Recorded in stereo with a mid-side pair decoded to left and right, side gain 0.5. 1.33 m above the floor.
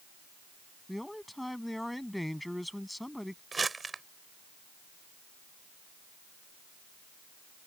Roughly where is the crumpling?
Ahead right.